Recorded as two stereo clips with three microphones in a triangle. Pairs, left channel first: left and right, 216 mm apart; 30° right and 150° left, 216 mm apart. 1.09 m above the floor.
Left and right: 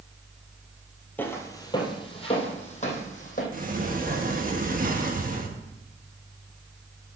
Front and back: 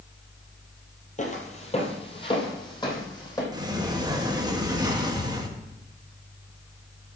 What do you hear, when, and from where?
1.2 s footsteps: 10° left, 1.6 m; by 3.4 s 40° left, 3 m
3.5 s a sliding door: 140° right, 1.2 m